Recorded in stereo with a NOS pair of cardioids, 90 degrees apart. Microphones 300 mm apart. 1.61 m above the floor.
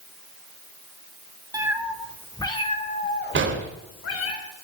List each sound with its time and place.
1.5 s a cat meowing: 10° right, 3 m; by 4.3 s 55° left, 4 m
3.4 s an explosion: 40° right, 3 m